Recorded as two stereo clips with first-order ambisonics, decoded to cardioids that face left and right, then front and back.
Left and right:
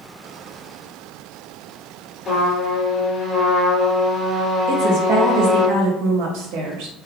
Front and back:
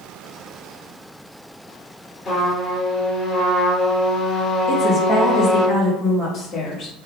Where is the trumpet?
35° left, 1.4 m.